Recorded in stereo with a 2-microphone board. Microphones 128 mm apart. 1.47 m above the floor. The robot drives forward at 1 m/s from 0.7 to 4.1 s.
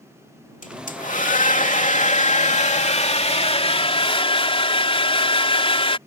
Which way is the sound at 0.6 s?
80° left.